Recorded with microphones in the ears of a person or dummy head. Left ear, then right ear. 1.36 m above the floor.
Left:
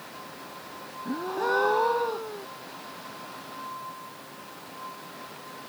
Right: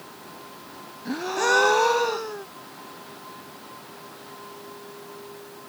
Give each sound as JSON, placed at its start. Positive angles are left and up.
{"t": 1.1, "sound": "a gasp", "side_deg": -70}